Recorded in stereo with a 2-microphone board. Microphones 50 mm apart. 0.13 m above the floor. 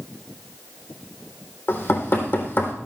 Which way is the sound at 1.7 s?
55° left (ahead or behind).